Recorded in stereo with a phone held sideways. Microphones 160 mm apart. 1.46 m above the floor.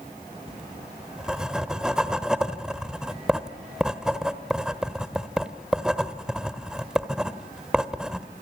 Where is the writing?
5° right (ahead or behind), 1.3 m.